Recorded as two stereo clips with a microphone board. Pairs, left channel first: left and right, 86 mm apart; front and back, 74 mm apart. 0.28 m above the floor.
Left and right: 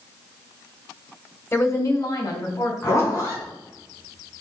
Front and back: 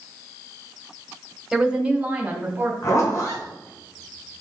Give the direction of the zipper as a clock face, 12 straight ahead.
11 o'clock.